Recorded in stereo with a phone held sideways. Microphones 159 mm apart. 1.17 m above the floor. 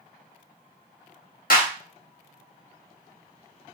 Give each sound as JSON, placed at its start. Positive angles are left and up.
{"t": 1.5, "sound": "a clap", "side_deg": 65, "distance_m": 0.9}